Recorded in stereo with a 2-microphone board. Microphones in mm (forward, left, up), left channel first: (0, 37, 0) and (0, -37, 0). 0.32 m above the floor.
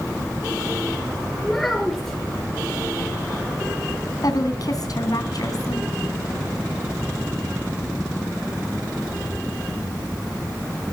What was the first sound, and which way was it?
A child speaking, 10° left (ahead or behind).